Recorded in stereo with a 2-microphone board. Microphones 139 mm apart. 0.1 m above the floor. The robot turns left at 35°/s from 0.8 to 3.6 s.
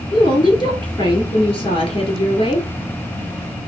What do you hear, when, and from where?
0.1 s a woman speaking: 125° left, 2 m; by 2.7 s 60° left, 2 m